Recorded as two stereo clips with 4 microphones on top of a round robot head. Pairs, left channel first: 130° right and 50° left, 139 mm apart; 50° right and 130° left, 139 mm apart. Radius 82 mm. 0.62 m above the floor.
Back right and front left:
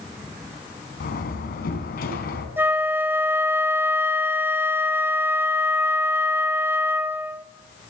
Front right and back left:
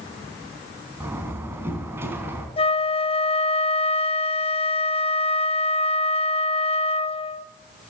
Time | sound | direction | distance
1.0 | a door slam | 155° right | 4 m
2.6 | a flute | 20° right | 1.0 m